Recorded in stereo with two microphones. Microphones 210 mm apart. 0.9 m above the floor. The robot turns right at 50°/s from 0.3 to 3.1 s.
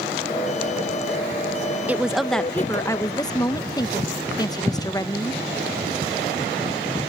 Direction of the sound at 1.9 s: 10° right (ahead or behind).